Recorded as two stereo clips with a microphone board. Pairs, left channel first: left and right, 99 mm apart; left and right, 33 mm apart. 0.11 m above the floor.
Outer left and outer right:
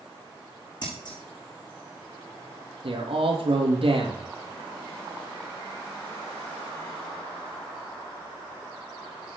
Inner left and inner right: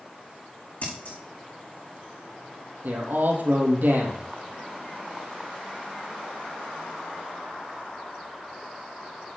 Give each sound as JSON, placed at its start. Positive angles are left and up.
{"t": 0.8, "sound": "scissors", "side_deg": 50, "distance_m": 6.5}
{"t": 2.8, "sound": "a man speaking", "side_deg": -65, "distance_m": 3.5}